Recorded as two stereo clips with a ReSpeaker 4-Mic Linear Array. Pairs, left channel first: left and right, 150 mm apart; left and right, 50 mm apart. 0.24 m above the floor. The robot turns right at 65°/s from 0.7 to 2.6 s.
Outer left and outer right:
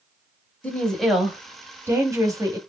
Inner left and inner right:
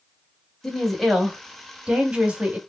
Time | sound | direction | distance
0.6 | a woman speaking | 10° left (ahead or behind) | 1.1 m